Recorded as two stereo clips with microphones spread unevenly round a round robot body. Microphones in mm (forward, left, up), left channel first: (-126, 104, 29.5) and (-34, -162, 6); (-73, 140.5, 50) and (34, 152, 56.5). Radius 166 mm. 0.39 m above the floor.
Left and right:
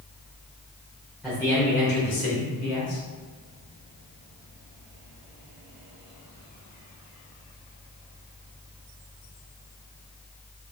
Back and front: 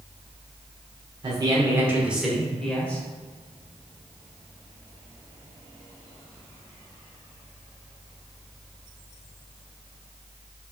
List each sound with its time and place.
1.2 s a man speaking: 10° left, 1.2 m; by 3.0 s 110° left, 2 m